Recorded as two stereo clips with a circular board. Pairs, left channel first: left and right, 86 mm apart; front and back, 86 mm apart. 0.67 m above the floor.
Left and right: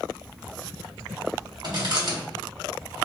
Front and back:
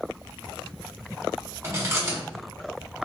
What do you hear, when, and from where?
1.6 s chewing: 125° right, 1.5 m